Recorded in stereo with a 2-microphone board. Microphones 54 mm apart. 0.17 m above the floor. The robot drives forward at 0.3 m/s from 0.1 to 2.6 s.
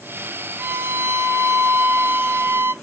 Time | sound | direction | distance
0.6 | a violin | 50° right (ahead or behind) | 0.7 m